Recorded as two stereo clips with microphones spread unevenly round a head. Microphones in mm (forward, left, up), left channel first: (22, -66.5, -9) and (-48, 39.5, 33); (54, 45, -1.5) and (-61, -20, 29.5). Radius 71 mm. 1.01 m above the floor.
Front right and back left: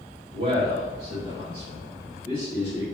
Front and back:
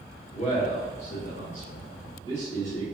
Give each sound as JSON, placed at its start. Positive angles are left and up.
{"t": 0.3, "sound": "a man speaking", "azimuth_deg": 70, "distance_m": 0.7}